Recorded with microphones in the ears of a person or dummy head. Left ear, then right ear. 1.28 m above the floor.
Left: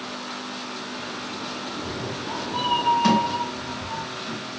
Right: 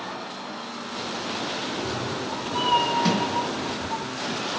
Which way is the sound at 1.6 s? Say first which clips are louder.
Right 2 dB; 30° right (ahead or behind).